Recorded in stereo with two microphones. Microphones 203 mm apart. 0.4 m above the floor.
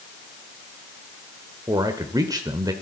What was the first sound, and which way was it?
A man speaking, 20° right (ahead or behind).